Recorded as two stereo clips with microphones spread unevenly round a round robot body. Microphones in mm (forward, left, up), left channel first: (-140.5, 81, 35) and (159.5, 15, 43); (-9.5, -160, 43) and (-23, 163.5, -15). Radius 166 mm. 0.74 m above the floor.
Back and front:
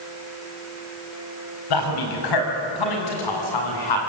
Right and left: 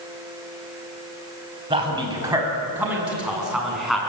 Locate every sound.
1.7 s a man speaking: 165° left, 5 m; by 4.0 s 175° right, 8 m